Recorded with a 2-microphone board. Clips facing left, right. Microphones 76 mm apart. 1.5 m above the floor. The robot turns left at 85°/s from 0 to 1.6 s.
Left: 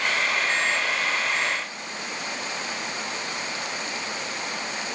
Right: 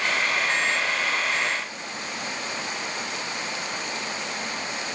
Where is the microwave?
No microwave in this recording.